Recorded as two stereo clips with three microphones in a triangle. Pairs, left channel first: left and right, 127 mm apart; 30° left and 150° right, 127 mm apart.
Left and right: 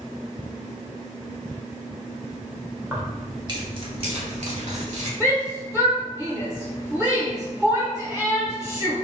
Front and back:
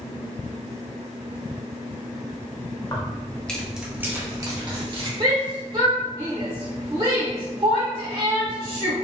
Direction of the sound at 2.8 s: 15° right.